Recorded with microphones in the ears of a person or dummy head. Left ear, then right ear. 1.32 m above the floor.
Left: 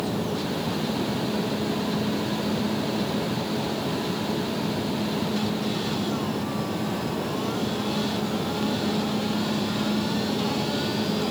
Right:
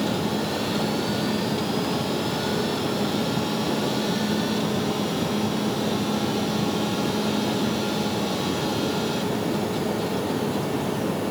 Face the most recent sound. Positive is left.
No sound to turn to.